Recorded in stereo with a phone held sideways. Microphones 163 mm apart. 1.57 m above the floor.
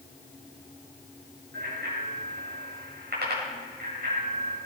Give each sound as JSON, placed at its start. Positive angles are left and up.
{"t": 1.5, "sound": "a bicycle bell", "side_deg": -80, "distance_m": 6.0}